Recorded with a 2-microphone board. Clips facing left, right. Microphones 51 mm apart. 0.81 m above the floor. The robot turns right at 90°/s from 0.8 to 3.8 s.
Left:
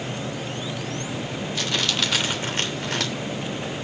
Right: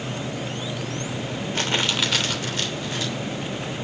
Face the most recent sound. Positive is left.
turn(degrees=150)